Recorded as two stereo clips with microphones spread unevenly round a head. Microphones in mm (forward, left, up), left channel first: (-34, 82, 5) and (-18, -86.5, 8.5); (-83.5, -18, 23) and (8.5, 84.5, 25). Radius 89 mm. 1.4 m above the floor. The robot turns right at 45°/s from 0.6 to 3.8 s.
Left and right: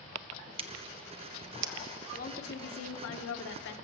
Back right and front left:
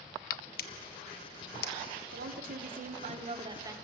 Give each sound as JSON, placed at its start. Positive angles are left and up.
{"t": 0.6, "sound": "scissors", "azimuth_deg": -145, "distance_m": 1.0}
{"t": 2.1, "sound": "a woman speaking", "azimuth_deg": 45, "distance_m": 1.2}